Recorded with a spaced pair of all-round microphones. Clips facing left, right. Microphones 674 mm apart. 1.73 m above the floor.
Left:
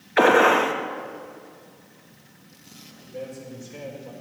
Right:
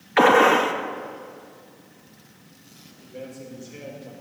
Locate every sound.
0.2 s a gunshot: 30° right (ahead or behind), 0.9 m
3.0 s a man speaking: 25° left (ahead or behind), 5 m